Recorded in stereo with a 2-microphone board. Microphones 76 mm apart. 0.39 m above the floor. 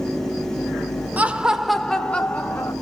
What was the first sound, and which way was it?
Laughter, 20° right (ahead or behind).